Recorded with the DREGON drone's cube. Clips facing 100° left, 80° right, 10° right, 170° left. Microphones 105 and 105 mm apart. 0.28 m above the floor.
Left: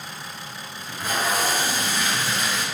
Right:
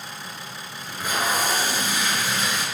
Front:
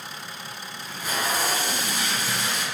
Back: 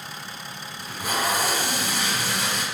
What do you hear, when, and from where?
0.8 s tape being pulled: 155° right, 0.8 m